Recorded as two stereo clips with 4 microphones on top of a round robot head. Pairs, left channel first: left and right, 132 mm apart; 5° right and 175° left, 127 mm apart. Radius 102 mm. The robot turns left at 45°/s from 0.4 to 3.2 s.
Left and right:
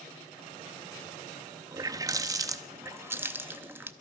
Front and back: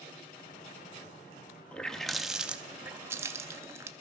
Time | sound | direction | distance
1.7 | a running tap | 75° right | 0.6 m